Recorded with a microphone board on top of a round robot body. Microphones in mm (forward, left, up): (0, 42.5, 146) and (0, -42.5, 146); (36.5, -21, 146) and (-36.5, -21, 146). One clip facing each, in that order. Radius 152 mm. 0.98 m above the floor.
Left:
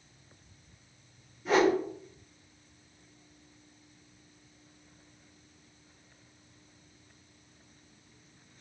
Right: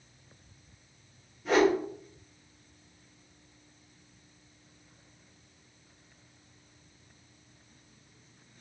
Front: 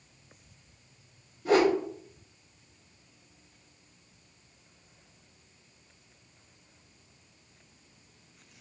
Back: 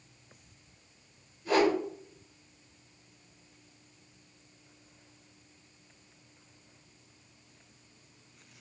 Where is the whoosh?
5° left, 3.5 m.